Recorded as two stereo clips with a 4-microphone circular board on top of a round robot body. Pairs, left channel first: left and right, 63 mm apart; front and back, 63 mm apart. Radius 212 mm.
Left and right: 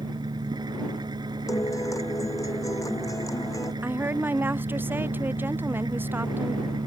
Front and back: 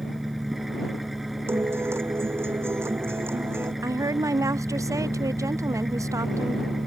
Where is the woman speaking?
145° right.